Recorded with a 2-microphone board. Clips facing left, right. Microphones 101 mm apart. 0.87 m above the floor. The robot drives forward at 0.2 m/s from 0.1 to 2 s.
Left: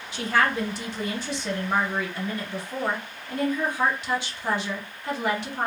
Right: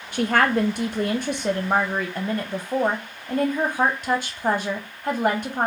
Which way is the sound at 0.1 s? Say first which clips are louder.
Right 4 dB; 55° right (ahead or behind).